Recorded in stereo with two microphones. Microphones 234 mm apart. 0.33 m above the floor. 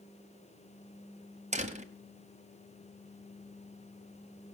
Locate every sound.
1.5 s a door slam: 30° right (ahead or behind), 1.5 m